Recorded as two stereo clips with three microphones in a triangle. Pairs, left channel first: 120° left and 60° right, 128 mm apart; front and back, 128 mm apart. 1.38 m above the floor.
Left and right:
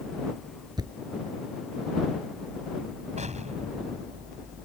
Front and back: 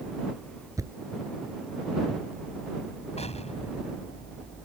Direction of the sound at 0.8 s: 115° right.